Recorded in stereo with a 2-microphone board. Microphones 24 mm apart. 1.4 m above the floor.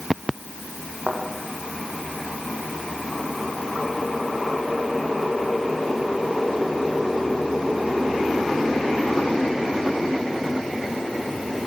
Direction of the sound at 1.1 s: 45° right (ahead or behind).